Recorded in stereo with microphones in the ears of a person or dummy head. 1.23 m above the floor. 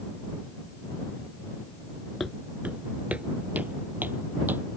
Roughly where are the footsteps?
Centre.